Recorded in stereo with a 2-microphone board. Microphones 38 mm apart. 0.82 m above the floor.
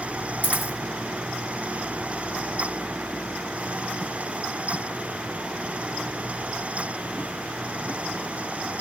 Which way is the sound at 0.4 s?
60° left (ahead or behind).